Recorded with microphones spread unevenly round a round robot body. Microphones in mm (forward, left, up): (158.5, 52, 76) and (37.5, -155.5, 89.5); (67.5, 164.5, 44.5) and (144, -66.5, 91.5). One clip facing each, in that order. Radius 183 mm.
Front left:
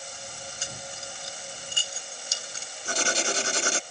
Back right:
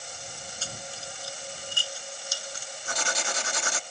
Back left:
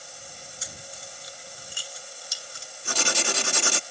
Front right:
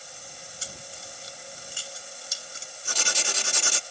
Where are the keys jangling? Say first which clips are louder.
Back right 1 dB, front right 1 dB; 10° right; by 2.7 s 5° right.